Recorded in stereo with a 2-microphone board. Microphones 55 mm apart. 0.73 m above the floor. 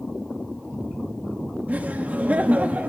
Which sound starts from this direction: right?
Laughter, at 1.7 s.